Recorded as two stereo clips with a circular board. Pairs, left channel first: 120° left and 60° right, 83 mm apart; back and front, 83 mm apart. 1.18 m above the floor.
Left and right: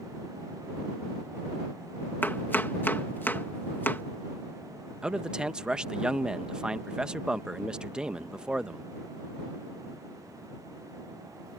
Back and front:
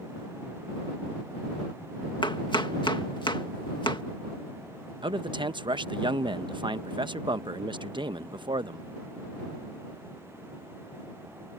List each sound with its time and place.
2.2 s chopping: 175° right
5.0 s a man speaking: 20° left